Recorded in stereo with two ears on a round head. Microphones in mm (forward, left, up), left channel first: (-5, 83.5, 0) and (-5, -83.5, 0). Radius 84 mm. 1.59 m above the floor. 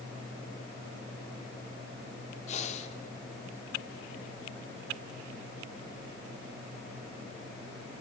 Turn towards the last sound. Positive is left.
turn(degrees=40)  # may be behind; listen again after turning